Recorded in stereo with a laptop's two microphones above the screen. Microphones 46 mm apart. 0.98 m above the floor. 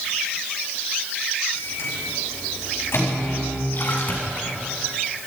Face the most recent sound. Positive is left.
turn(degrees=55)  # may be behind; listen again after turning